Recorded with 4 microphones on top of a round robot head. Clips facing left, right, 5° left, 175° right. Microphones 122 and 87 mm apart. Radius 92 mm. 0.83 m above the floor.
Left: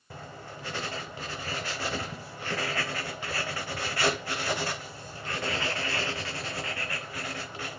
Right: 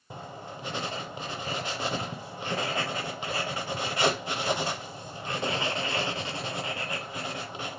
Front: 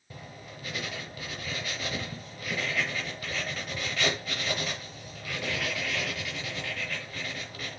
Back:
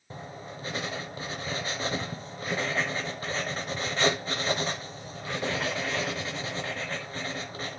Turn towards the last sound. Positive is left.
turn(degrees=-145)